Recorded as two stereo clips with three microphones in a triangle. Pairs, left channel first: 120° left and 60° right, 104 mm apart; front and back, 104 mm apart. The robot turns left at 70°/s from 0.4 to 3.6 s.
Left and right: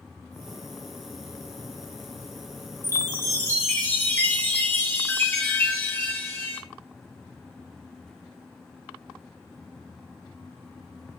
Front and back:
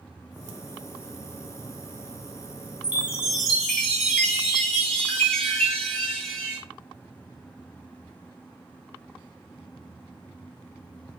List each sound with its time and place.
2.8 s a chime: 130° left, 1.5 m; by 6.6 s 80° left, 1.5 m